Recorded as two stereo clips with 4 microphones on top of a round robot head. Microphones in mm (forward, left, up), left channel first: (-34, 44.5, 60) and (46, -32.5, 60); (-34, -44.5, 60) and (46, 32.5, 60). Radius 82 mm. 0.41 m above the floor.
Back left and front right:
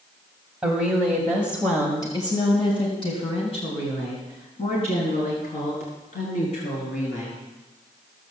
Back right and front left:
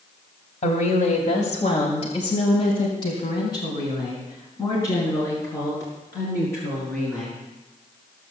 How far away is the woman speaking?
About 2.5 m.